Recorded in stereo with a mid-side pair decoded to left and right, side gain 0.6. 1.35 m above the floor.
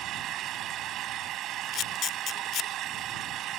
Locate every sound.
0.0 s an engine running: 60° right
1.7 s a camera shutter: 50° left